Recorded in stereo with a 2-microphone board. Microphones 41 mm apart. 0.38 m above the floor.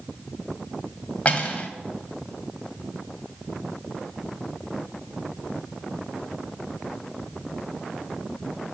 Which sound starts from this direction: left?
Cutlery clinking, at 1.2 s.